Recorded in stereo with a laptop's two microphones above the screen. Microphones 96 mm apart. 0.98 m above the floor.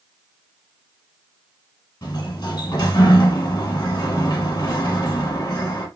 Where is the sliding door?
45° left (ahead or behind), 1.4 m.